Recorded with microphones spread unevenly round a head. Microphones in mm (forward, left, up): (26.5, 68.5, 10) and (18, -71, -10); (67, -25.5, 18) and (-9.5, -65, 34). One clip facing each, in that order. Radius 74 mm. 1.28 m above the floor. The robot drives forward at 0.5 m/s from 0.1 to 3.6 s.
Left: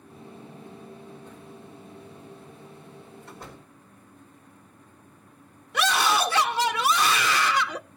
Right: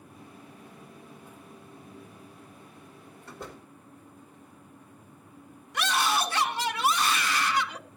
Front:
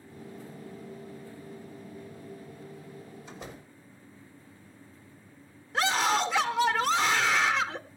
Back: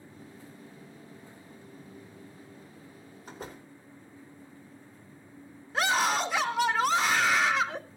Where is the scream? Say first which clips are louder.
Left 4 dB, even; 120° left, 0.8 m.